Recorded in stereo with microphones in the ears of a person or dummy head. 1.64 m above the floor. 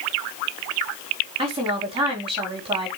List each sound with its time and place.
1.4 s a woman speaking: 30° right (ahead or behind), 4.5 m